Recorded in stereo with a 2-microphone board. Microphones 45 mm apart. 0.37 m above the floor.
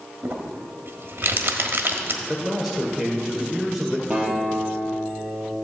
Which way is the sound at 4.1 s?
15° right (ahead or behind).